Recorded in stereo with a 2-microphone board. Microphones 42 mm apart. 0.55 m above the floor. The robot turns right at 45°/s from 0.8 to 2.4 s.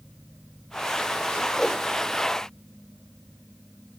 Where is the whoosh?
10° left (ahead or behind), 0.5 m; by 1.8 s centre (ahead or behind), 0.5 m.